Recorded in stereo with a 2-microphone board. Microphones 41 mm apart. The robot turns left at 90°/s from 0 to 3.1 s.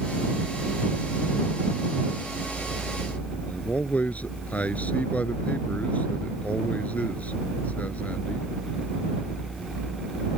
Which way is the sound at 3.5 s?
40° left (ahead or behind).